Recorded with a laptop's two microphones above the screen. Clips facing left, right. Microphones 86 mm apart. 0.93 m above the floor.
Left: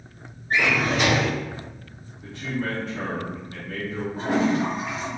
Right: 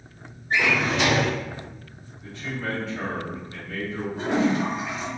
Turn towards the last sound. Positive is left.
turn(degrees=45)  # may be behind; listen again after turning